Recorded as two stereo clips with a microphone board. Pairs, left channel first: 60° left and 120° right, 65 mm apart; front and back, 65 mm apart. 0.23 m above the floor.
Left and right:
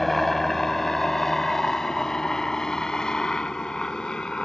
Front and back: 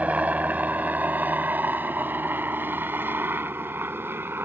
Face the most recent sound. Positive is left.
turn(degrees=135)